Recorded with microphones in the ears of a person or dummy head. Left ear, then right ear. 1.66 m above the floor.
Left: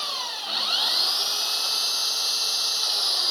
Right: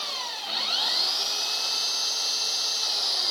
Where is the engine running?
5° left (ahead or behind).